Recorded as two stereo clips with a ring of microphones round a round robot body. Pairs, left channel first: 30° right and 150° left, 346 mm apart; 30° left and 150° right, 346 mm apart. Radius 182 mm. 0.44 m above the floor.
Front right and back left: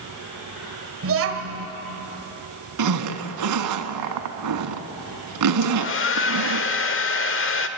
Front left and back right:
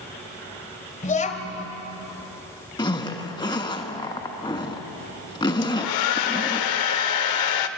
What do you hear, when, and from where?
1.0 s a child speaking: 100° left, 1.9 m
2.8 s a zipper: 110° left, 1.2 m
5.6 s a hair dryer: 25° left, 1.0 m